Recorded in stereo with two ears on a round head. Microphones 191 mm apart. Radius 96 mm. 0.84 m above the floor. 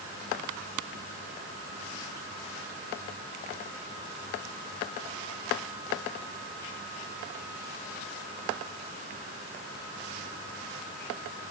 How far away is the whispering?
I don't hear whispering.